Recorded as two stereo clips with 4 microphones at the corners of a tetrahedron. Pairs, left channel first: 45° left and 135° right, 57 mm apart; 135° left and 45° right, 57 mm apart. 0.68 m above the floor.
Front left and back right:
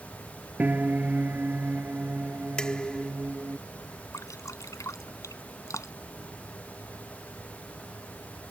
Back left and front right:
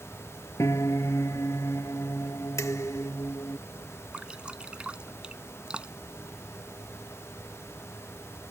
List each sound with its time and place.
0.6 s a piano: 165° left
2.6 s dishes clattering: 115° left
4.1 s dripping: 25° left